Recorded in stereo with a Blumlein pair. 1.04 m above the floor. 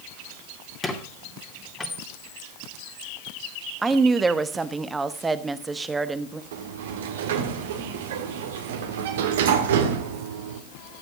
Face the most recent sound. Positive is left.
turn(degrees=-55)